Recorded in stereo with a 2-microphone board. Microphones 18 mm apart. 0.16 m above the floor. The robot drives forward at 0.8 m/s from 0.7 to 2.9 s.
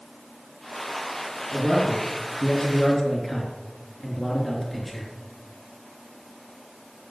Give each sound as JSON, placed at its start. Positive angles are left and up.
{"t": 1.5, "sound": "a man speaking", "side_deg": 20, "distance_m": 4.0}